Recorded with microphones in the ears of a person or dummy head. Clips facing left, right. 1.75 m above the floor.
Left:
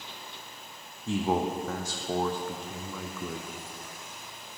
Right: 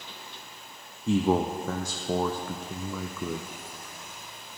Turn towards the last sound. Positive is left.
turn(degrees=-75)  # may be behind; listen again after turning